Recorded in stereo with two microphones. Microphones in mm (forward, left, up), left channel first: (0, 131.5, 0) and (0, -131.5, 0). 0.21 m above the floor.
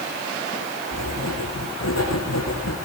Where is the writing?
85° left, 6.5 m.